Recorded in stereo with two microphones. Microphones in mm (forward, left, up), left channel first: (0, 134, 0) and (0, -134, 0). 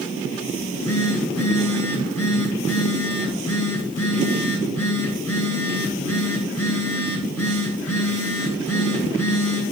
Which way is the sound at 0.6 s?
65° left (ahead or behind).